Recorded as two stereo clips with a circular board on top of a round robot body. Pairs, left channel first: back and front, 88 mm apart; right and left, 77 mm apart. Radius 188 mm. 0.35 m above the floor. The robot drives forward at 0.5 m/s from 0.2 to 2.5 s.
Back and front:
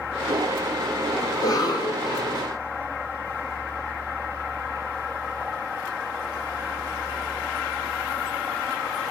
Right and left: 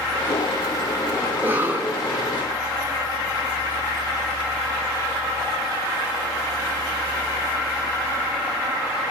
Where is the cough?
150° left, 1.5 m; by 2.4 s 160° left, 1.9 m.